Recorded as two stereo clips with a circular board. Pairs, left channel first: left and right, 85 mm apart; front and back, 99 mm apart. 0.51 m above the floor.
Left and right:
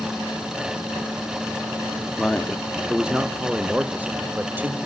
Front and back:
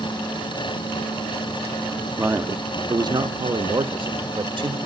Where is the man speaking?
150° left, 0.7 m; by 4.8 s 155° right, 1.7 m.